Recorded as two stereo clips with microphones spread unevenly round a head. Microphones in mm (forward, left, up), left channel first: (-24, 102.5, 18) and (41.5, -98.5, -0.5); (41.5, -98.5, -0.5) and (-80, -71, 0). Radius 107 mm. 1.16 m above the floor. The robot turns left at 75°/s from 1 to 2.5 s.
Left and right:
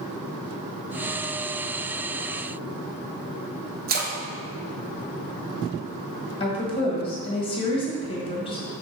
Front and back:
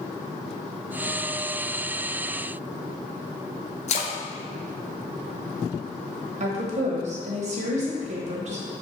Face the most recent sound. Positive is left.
turn(degrees=175)